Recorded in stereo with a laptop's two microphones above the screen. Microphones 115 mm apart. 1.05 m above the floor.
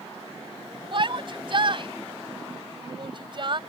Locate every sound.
0.9 s a shout: 45° right (ahead or behind)